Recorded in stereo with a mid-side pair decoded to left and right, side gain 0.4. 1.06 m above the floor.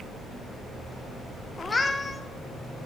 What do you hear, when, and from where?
1.6 s a cat meowing: 25° left, 1.7 m